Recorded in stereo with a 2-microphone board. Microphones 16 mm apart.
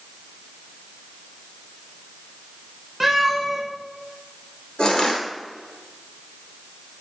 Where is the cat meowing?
15° right (ahead or behind), 2.5 m.